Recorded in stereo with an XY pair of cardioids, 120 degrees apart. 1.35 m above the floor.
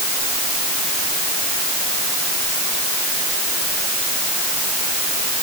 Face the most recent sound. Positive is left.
No sound to turn to.